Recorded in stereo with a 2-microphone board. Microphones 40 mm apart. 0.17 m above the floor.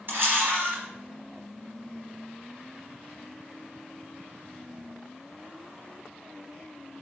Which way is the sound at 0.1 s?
60° right (ahead or behind).